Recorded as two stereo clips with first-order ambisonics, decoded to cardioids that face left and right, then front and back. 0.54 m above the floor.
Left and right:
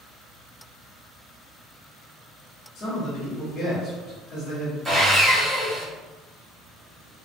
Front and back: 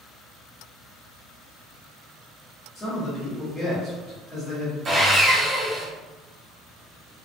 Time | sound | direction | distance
2.8 | a man speaking | 60° left | 0.8 m
4.8 | sawing | 165° right | 0.6 m